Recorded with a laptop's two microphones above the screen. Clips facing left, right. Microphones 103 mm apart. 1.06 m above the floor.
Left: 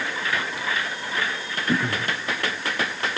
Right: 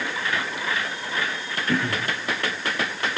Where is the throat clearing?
20° left (ahead or behind), 1.9 m.